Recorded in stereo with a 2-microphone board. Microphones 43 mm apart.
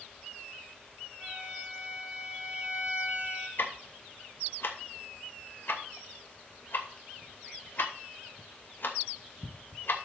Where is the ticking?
60° left (ahead or behind), 2.5 m.